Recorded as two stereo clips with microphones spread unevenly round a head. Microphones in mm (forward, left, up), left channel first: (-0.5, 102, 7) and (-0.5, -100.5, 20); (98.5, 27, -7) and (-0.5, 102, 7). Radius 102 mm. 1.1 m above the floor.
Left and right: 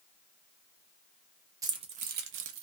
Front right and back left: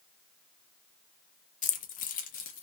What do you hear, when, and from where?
1.6 s keys jangling: 20° right, 0.6 m; by 2.6 s 80° right, 0.6 m